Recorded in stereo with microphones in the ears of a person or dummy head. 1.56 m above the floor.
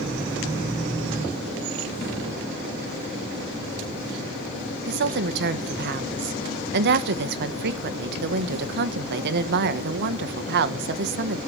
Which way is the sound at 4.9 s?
65° right (ahead or behind).